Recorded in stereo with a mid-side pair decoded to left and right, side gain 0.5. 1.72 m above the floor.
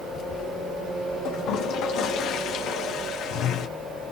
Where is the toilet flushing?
70° left, 1.2 m.